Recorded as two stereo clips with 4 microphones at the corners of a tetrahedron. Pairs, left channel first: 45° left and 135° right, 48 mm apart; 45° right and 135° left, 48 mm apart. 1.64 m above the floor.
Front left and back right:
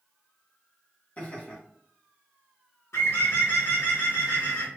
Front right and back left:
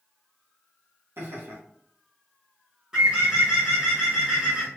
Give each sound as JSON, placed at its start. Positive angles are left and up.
{"t": 1.2, "sound": "laughter", "azimuth_deg": 105, "distance_m": 1.6}
{"t": 2.9, "sound": "a bird", "azimuth_deg": 65, "distance_m": 1.8}